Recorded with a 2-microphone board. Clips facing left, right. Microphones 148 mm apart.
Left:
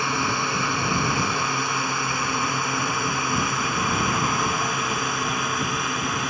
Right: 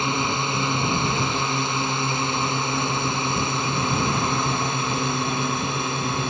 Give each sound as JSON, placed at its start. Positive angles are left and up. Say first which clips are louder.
{"t": 0.0, "sound": "a drone", "louder": "right 1 dB", "side_deg": -20}